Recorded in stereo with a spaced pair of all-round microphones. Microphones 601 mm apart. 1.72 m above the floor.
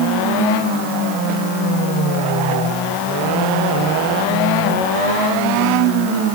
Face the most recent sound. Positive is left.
No sound to turn to.